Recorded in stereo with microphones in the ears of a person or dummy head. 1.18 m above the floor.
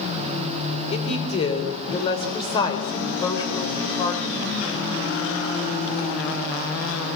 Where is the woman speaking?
30° left (ahead or behind), 4 m; by 4.7 s 15° left (ahead or behind), 5.5 m.